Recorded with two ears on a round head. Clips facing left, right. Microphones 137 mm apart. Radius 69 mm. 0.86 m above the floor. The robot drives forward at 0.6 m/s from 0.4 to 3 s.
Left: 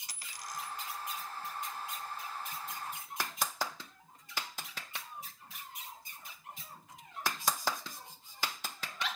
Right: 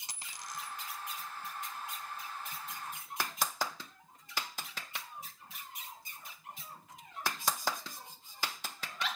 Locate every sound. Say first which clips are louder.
0.1 s a dropped coin: left 1 dB; 25° right (ahead or behind), 1.3 m; by 0.8 s 30° right (ahead or behind), 1.1 m